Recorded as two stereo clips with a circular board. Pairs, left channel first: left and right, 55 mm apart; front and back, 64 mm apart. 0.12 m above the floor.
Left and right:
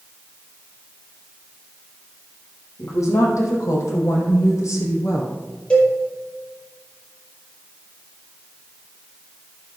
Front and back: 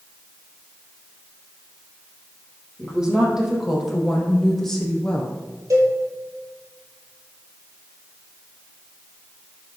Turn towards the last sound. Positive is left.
turn(degrees=155)